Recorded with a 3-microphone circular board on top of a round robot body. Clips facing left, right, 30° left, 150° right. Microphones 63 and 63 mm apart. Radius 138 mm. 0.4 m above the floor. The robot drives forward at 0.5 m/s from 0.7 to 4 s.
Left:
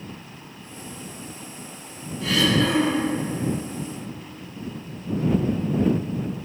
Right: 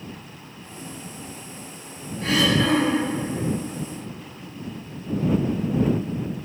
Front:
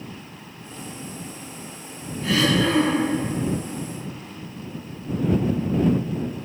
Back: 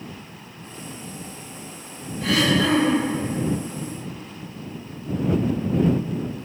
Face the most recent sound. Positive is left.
turn(degrees=-145)